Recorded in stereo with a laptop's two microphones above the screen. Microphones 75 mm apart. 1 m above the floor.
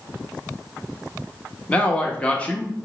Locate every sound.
1.7 s a man speaking: 15° left (ahead or behind), 1.0 m